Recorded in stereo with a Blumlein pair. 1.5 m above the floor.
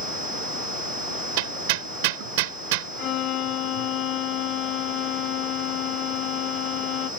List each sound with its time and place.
1.4 s hammering: 50° right
3.0 s a violin: 35° left